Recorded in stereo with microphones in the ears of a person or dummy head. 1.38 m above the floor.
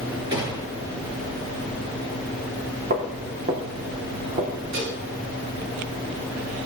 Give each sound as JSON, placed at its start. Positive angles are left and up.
{"t": 0.3, "sound": "a gunshot", "side_deg": -25, "distance_m": 6.5}
{"t": 2.9, "sound": "footsteps", "side_deg": -50, "distance_m": 4.5}
{"t": 4.7, "sound": "dishes clattering", "side_deg": -60, "distance_m": 8.5}